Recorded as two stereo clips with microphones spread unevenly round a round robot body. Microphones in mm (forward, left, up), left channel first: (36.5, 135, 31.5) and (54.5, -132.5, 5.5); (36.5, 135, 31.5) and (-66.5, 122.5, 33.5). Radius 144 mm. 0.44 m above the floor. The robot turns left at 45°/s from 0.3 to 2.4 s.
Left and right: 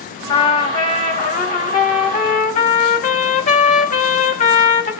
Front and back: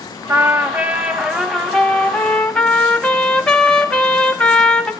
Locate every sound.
0.3 s a trumpet: 165° left, 1.2 m; by 4.9 s 70° left, 1.2 m